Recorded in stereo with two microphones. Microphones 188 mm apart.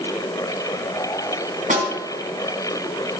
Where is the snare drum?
45° right (ahead or behind), 3.5 m.